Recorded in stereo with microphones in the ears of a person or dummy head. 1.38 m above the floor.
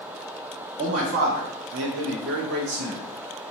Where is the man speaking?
40° right (ahead or behind), 0.7 m; by 3.0 s 55° right (ahead or behind), 1.3 m.